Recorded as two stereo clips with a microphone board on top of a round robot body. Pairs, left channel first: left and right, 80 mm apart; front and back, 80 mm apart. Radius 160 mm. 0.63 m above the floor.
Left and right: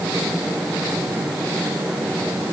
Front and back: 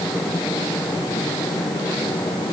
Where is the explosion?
No explosion in this recording.